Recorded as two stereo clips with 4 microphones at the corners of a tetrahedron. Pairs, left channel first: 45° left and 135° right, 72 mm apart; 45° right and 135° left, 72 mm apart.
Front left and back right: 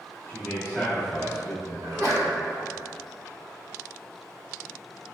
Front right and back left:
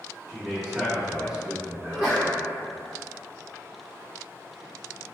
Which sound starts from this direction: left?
A man speaking, at 0.3 s.